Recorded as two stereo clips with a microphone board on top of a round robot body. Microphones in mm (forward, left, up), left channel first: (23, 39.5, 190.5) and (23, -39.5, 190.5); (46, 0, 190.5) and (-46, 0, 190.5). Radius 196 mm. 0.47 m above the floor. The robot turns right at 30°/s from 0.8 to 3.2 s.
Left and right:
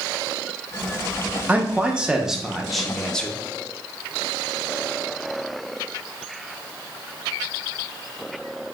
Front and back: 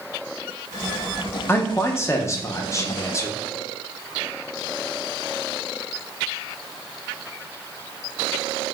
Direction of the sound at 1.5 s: 35° right.